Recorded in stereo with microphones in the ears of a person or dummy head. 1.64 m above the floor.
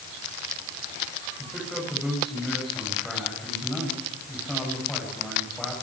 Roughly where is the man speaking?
Centre.